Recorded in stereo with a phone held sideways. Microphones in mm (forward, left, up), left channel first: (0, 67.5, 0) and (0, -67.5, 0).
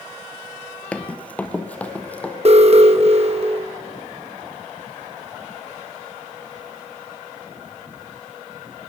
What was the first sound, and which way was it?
Running footsteps, 10° left (ahead or behind).